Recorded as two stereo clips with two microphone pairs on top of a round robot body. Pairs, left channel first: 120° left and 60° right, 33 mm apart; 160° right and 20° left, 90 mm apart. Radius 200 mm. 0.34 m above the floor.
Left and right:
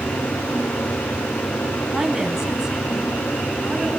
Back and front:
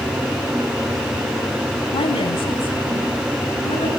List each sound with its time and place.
1.9 s a woman speaking: 145° right, 5 m; by 3.9 s 140° right, 7.5 m